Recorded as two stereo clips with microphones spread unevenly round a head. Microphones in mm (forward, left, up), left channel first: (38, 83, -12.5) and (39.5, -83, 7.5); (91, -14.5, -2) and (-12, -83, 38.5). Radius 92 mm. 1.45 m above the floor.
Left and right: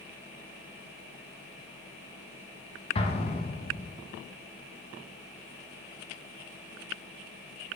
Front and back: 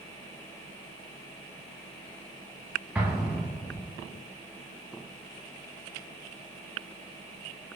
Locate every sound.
3.0 s an explosion: 150° left, 0.8 m